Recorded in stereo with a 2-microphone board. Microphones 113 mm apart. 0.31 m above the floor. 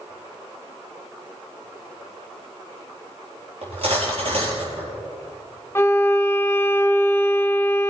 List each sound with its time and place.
3.6 s cutlery clinking: 55° right (ahead or behind), 4 m
5.8 s a violin: 20° left (ahead or behind), 0.7 m